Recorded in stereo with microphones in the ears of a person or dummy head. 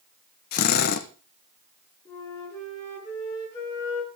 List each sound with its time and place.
0.5 s a drill: 55° left (ahead or behind), 1.2 m
2.0 s a flute: 20° left (ahead or behind), 10 m